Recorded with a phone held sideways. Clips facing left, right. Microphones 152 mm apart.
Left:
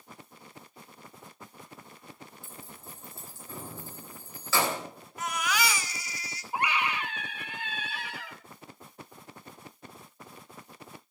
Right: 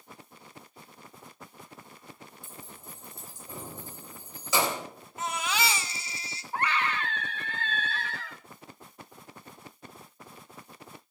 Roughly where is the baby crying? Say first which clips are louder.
Even; right.